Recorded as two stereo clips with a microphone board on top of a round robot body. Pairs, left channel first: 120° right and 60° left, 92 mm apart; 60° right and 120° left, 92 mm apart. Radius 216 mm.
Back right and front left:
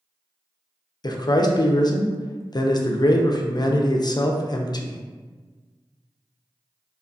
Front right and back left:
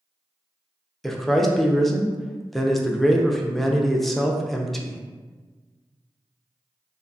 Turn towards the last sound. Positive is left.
turn(degrees=-150)